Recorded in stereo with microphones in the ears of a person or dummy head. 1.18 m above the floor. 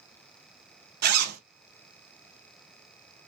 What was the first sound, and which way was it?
A zipper, 45° right (ahead or behind).